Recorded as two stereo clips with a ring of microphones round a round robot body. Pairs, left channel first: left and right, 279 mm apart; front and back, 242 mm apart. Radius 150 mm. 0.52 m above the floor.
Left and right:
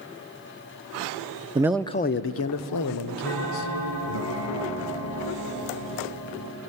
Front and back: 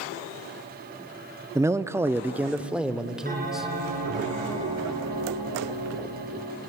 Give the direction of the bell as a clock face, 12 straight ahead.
8 o'clock.